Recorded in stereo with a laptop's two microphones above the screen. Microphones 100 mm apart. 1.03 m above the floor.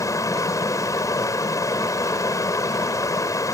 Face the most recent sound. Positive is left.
turn(degrees=30)  # may be behind; listen again after turning